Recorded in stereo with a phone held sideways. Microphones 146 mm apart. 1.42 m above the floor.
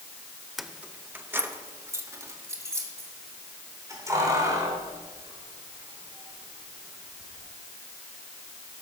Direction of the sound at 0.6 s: Centre (ahead or behind).